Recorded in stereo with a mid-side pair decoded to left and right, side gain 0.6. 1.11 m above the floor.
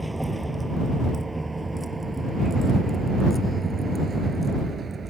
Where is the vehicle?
10° right; by 5.1 s 30° right.